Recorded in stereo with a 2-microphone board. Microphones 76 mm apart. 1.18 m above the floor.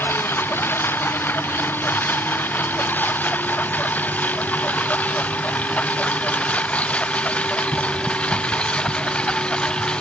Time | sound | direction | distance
0.0 | a lawn mower | 30° left (ahead or behind) | ?